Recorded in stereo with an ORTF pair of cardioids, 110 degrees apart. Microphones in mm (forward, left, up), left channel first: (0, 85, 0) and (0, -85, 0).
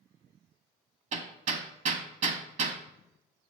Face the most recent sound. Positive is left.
turn(degrees=-50)